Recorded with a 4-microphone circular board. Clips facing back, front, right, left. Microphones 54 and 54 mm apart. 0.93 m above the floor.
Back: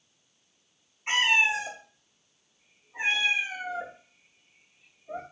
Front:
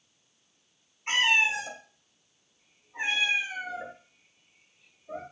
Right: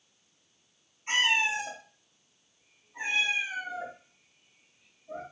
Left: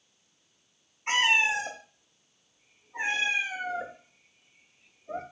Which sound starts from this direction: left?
A cat meowing, at 1.1 s.